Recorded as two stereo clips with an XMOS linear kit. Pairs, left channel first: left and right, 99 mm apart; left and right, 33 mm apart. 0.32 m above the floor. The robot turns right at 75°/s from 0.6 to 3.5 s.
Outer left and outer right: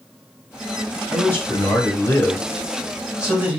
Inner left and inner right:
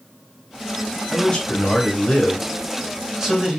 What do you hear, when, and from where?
1.1 s a man speaking: 20° left (ahead or behind), 1.1 m; by 3.6 s 20° right (ahead or behind), 1.1 m